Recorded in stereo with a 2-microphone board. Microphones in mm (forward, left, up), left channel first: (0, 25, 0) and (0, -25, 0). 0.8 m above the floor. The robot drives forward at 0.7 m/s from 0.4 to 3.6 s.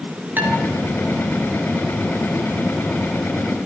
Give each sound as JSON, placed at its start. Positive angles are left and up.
{"t": 0.4, "sound": "dishes clattering", "side_deg": -35, "distance_m": 9.0}